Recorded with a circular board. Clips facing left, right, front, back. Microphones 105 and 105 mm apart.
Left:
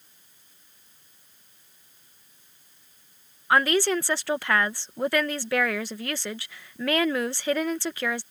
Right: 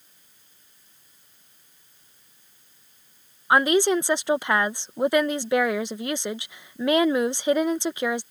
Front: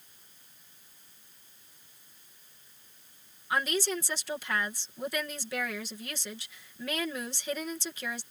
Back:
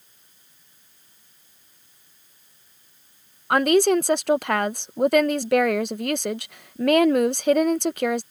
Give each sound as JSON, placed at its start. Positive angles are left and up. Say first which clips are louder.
{"t": 3.5, "sound": "a woman speaking", "louder": "right 3 dB, back 13 dB", "azimuth_deg": -160}